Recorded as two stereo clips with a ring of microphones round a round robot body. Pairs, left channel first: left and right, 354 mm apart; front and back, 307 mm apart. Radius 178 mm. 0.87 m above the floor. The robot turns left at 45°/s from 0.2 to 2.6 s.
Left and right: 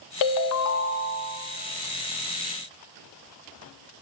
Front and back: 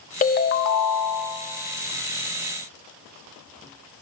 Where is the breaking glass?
I don't hear breaking glass.